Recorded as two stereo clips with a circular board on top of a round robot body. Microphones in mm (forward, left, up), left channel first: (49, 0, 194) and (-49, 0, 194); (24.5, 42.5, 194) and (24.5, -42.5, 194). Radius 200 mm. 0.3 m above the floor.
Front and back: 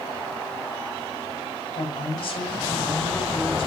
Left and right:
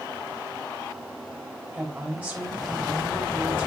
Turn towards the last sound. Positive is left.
turn(degrees=-25)